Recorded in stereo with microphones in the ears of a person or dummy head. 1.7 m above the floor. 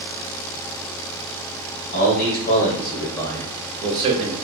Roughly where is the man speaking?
Left.